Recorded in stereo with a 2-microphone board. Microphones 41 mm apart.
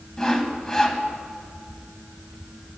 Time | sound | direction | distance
0.2 | sawing | 15° left (ahead or behind) | 1.4 m